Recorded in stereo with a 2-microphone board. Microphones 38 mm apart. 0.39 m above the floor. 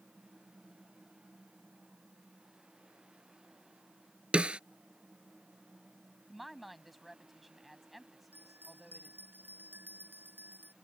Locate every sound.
4.3 s a snare drum: 30° right (ahead or behind)
6.3 s a woman speaking: 5° right (ahead or behind)
8.3 s a bell: 60° right (ahead or behind)